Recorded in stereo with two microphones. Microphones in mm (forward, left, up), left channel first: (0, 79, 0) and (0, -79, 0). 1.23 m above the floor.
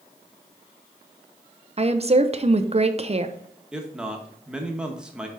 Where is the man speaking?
5° right (ahead or behind), 1.3 m.